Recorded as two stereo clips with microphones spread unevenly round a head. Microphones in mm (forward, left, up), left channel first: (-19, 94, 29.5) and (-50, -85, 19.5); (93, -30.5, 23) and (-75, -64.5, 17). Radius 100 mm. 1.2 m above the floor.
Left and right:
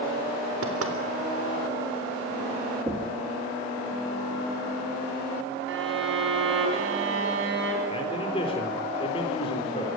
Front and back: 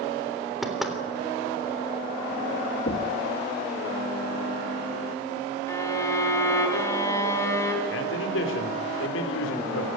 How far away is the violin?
About 4.5 m.